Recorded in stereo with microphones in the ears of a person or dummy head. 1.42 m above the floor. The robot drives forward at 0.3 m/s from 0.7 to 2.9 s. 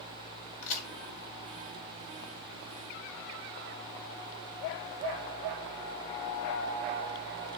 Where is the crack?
40° left (ahead or behind), 1.0 m; by 0.9 s 45° left (ahead or behind), 1.0 m.